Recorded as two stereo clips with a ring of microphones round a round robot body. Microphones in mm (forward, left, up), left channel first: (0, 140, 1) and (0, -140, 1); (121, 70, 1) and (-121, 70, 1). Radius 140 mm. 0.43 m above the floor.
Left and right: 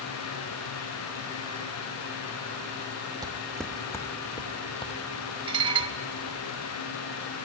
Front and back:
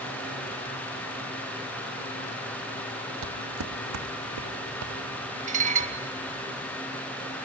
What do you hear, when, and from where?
3.2 s footsteps: 165° right, 1.2 m; by 6.4 s 155° left, 6 m
5.5 s dishes clattering: 150° right, 0.7 m